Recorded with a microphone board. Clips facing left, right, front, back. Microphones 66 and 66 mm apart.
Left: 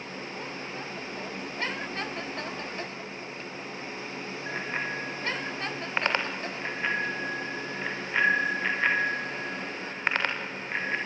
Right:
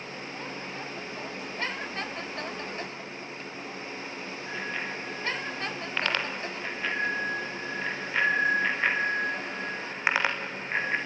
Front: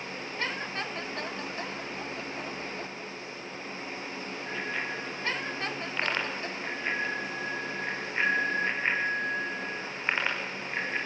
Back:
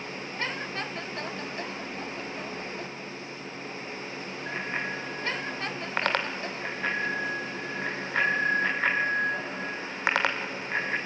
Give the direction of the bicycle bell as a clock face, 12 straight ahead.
8 o'clock.